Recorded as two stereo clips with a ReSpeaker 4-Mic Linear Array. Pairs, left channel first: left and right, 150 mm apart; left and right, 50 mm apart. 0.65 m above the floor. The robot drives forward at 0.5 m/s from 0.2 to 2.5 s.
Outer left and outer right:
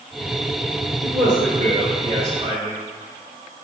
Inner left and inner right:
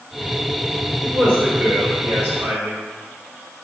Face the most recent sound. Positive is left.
turn(degrees=-60)  # may be behind; listen again after turning